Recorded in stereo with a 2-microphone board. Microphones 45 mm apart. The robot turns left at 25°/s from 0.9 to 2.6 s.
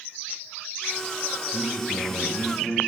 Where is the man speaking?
30° right (ahead or behind), 6 m; by 2.8 s 5° right (ahead or behind), 6 m.